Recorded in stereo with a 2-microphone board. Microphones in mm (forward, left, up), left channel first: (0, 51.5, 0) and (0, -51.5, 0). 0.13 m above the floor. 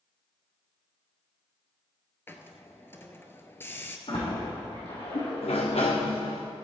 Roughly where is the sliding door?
Left.